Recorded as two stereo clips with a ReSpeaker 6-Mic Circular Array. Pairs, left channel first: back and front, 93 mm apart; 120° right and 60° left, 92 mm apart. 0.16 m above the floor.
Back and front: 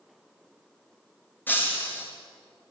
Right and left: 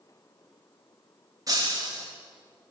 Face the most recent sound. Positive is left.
turn(degrees=110)